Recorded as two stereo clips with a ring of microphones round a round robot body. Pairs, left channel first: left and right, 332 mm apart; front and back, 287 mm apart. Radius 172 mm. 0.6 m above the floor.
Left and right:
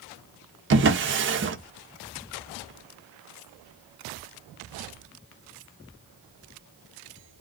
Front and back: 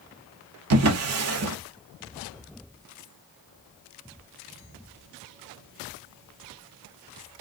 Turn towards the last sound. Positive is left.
turn(degrees=-145)